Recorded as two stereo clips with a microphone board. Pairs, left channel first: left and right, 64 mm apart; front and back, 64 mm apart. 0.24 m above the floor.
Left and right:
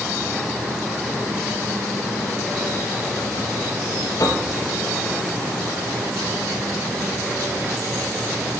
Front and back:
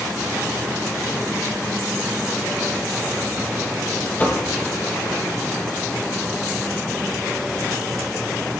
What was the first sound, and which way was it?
Knocking, 65° left.